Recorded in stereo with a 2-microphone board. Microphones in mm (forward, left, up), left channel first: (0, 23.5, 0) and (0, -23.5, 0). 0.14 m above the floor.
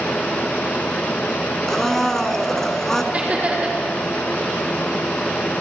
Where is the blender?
10° left (ahead or behind), 0.6 m.